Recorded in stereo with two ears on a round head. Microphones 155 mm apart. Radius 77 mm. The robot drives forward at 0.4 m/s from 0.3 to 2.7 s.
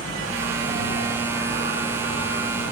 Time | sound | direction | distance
0.0 | an insect | 15° left (ahead or behind) | 0.9 m